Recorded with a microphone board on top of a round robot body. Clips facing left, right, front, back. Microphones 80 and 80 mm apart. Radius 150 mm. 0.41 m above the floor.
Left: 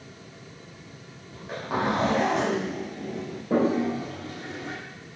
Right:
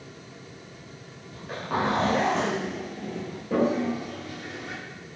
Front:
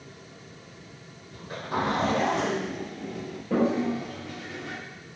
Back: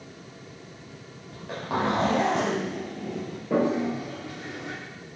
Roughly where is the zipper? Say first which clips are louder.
Even, back 1 dB; behind.